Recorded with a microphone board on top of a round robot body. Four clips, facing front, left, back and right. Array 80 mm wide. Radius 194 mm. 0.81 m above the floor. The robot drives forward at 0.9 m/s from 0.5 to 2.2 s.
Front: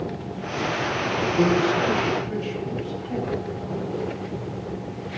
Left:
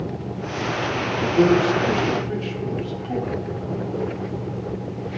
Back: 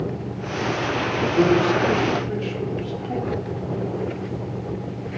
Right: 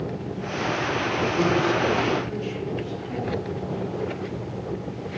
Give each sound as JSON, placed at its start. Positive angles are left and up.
{"t": 1.3, "sound": "a man speaking", "azimuth_deg": 125, "distance_m": 2.5}